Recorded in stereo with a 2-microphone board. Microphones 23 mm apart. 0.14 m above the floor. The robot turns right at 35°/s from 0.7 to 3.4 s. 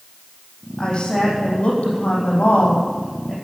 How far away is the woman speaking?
About 5.5 m.